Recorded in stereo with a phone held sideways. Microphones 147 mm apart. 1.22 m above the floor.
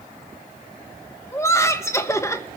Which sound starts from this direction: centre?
Laughter, at 1.3 s.